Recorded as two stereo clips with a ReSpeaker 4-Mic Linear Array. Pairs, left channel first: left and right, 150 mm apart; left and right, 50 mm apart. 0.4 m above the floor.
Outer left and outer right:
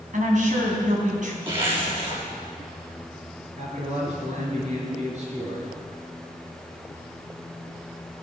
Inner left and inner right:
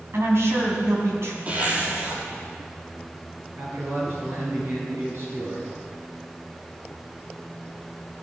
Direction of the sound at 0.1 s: 60° right (ahead or behind).